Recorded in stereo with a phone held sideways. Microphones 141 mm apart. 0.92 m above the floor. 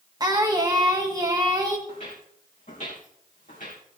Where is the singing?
25° right (ahead or behind), 1.2 m.